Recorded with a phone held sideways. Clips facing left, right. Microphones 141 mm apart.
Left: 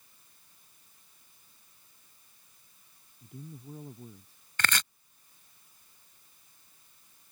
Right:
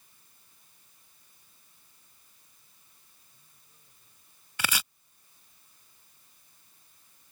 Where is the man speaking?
80° left.